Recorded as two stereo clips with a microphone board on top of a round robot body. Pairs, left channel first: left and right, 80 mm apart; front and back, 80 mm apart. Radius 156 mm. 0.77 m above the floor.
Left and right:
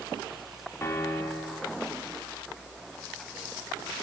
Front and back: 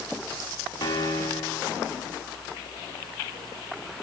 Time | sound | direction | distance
0.8 | a piano | 30° left | 2 m